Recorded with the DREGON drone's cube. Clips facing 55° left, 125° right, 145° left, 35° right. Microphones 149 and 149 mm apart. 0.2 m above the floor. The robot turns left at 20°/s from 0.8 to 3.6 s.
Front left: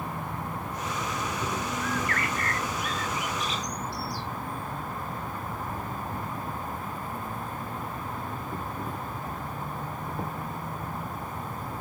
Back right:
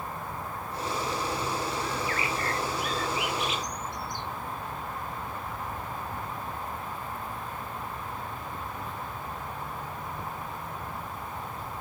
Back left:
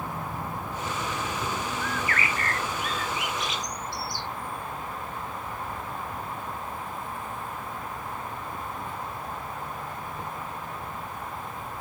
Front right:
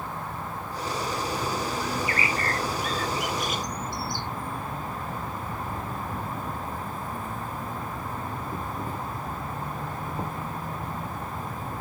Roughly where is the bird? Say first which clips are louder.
Front left 1 dB, front right 2 dB; ahead left.